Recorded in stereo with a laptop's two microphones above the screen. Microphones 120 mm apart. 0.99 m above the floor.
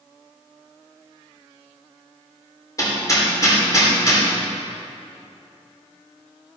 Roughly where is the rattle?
I don't hear a rattle.